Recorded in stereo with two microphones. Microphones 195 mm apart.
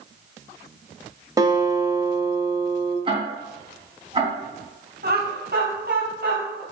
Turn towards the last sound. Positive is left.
turn(degrees=-60)  # may be behind; listen again after turning